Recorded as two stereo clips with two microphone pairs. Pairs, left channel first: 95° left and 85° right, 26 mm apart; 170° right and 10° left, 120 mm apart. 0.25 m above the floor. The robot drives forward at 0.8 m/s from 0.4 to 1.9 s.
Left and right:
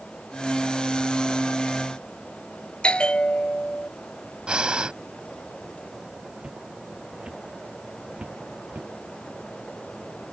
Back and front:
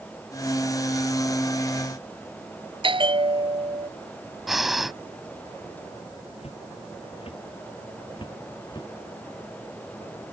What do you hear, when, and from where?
2.8 s a bell: 50° left
4.5 s breathing: 75° right
6.4 s footsteps: 140° right; by 8.9 s 115° right